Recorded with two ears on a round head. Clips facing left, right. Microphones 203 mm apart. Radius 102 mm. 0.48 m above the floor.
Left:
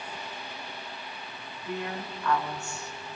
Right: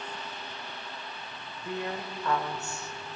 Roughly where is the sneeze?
No sneeze in this recording.